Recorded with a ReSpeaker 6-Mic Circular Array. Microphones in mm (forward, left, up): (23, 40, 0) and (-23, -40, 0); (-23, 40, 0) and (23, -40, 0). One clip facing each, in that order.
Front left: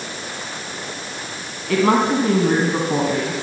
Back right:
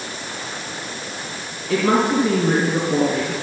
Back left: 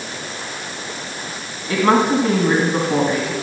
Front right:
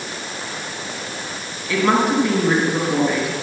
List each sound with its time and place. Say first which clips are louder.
1.7 s a woman speaking: front left 1 dB, back left 2 dB; 65° left, 2.5 m